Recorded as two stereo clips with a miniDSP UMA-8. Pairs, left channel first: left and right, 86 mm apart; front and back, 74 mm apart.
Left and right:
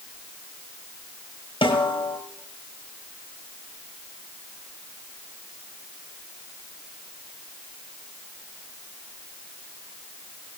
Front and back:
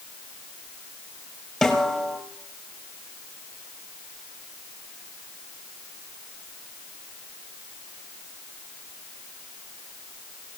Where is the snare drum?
90° left, 4.5 m.